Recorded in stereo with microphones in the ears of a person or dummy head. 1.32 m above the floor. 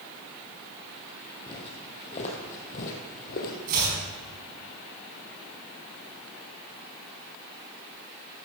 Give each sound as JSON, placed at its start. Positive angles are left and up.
{"t": 1.5, "sound": "footsteps", "side_deg": 30, "distance_m": 3.5}
{"t": 3.7, "sound": "chopping", "side_deg": -45, "distance_m": 5.0}